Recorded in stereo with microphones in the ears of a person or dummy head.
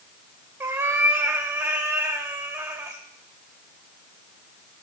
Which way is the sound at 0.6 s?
15° right (ahead or behind).